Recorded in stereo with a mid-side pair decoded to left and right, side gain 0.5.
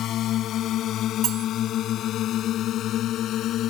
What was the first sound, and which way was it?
A drone, 65° left.